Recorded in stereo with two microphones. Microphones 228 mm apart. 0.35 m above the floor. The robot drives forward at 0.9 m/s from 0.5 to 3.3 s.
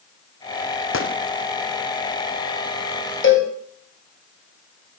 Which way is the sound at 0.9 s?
65° left (ahead or behind).